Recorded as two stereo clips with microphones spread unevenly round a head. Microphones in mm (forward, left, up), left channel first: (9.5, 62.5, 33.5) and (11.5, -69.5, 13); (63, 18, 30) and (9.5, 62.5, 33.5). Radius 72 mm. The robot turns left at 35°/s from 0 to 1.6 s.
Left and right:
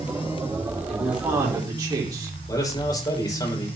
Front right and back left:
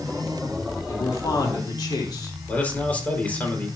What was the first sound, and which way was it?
A man speaking, 5° right.